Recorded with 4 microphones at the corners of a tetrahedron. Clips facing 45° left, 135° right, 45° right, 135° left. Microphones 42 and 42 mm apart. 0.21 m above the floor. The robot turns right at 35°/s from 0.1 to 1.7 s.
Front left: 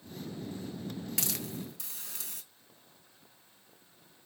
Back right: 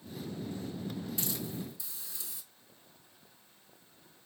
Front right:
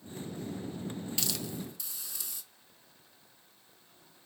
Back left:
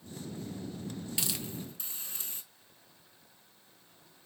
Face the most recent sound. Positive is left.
turn(degrees=80)